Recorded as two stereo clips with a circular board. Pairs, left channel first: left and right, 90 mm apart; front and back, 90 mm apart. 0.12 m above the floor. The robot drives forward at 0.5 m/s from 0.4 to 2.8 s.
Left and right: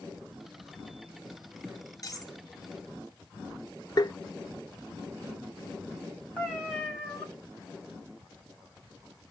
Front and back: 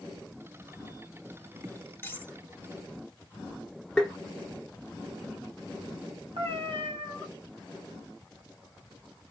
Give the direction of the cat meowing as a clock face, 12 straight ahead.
6 o'clock.